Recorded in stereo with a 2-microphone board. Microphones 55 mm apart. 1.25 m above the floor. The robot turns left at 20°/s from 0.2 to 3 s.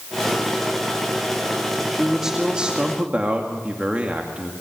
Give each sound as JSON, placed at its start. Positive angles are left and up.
{"t": 1.9, "sound": "a man speaking", "side_deg": -5, "distance_m": 2.0}